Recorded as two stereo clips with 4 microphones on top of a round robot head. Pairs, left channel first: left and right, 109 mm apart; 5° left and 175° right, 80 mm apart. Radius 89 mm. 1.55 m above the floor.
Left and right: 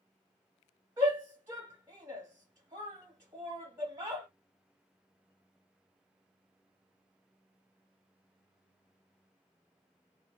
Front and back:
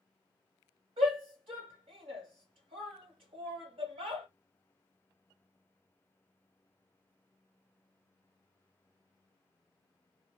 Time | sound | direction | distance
1.0 | a shout | 160° right | 1.8 m